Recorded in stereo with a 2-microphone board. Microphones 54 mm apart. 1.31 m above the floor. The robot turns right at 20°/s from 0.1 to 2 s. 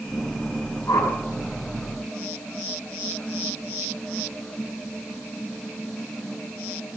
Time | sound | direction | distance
0.9 | a whoosh | 75° left (ahead or behind) | 5.5 m